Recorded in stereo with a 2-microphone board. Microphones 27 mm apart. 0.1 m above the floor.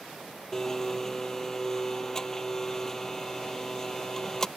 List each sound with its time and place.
0.5 s a blender: 15° left (ahead or behind)